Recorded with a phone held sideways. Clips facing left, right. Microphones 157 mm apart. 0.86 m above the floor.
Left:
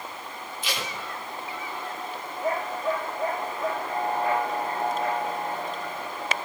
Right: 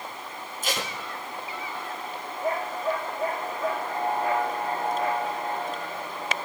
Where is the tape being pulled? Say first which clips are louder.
Right 3 dB; 45° right (ahead or behind), 1.7 m.